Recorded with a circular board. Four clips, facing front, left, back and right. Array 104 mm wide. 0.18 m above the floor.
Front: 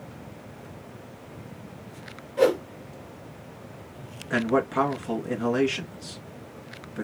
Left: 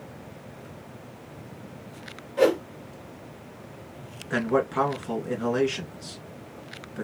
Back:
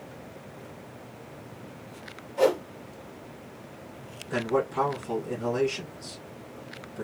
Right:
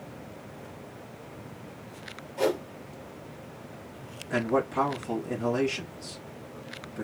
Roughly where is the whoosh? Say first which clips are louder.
Left 6 dB, front 2 dB; ahead left.